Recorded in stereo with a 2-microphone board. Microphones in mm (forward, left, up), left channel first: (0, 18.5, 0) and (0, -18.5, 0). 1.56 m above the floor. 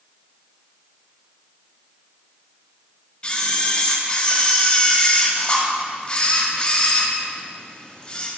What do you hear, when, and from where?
3.2 s a camera shutter: 30° left (ahead or behind), 1.9 m